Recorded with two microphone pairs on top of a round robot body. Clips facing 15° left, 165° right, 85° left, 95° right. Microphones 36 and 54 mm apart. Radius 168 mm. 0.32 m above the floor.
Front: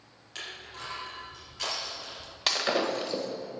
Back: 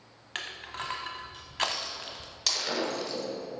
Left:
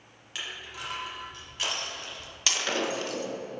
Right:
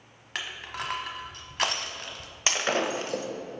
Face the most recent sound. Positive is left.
turn(degrees=-40)